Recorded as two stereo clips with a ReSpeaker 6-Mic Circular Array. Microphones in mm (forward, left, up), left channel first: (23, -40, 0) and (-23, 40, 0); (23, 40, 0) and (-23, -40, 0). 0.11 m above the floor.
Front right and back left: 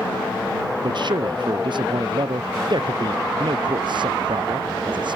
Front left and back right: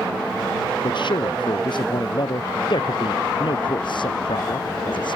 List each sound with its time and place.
0.8 s a man speaking: 90° left